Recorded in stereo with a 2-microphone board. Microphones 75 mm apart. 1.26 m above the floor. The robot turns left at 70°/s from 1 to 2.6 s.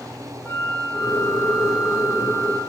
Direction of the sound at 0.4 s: 45° left.